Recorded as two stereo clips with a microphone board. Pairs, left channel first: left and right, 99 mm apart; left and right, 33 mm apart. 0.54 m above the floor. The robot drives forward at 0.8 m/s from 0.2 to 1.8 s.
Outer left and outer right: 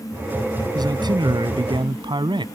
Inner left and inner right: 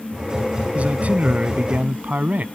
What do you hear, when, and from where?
0.8 s a man speaking: 45° right (ahead or behind); by 2.5 s 55° right (ahead or behind)